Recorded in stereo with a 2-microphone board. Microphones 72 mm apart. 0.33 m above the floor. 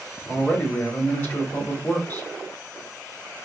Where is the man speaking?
30° left (ahead or behind), 1.3 m.